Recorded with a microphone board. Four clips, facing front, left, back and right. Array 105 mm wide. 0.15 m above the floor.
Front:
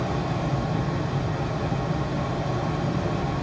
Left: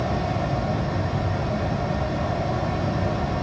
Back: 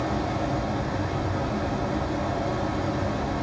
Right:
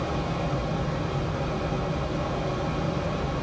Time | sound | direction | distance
0.0 | running water | 95° left | 3.5 m